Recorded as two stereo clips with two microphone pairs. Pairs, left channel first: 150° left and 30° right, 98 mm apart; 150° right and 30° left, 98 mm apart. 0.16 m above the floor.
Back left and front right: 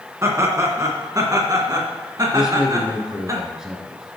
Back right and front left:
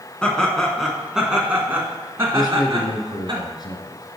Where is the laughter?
70° right, 1.9 m; by 3.3 s 5° left, 2 m.